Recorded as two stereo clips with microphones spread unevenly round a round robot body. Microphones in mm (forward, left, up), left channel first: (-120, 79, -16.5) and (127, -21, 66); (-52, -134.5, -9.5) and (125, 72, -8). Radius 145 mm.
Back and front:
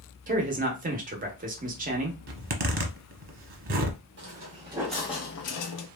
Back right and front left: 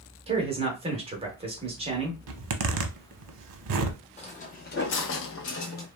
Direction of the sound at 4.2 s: 65° right.